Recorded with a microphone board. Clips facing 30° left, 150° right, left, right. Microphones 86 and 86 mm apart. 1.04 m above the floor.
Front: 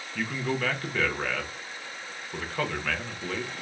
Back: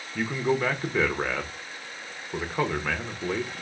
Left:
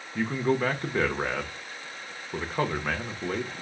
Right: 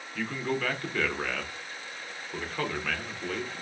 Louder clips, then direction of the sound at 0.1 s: Back 4 dB, left 5 dB; 140° left.